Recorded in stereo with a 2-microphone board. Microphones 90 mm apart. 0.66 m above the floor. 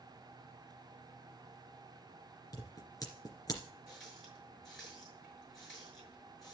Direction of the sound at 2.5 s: 45° left (ahead or behind).